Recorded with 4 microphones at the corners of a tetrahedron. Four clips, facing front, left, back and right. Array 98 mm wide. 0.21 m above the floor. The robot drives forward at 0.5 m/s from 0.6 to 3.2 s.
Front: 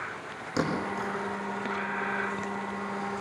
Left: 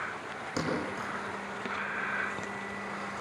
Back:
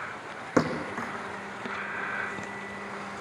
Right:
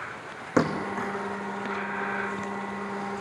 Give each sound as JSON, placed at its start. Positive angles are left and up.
{"t": 0.6, "sound": "a thud", "azimuth_deg": -135, "distance_m": 4.5}